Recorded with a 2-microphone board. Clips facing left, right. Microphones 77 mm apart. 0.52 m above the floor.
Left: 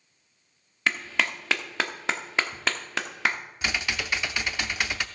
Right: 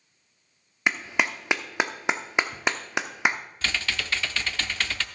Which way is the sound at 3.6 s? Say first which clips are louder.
Left 1 dB; 10° left (ahead or behind).